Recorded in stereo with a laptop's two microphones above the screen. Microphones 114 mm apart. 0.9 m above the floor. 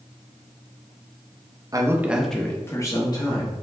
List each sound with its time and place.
1.7 s a man speaking: 30° right (ahead or behind), 0.6 m; by 3.5 s 45° left (ahead or behind), 1.2 m